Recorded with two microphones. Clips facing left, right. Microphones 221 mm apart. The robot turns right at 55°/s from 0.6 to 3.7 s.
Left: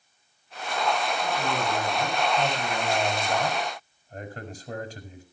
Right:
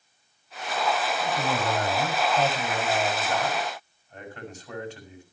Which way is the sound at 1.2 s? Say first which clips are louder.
Right 1 dB; 100° right.